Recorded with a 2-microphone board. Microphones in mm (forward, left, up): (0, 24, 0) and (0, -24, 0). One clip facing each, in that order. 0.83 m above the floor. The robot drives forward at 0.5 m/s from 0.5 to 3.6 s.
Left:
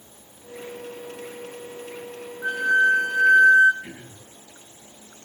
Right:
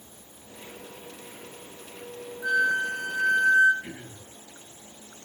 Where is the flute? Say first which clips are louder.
Left 5 dB; 35° left (ahead or behind), 2.5 m; by 3.7 s 45° left (ahead or behind), 1.8 m.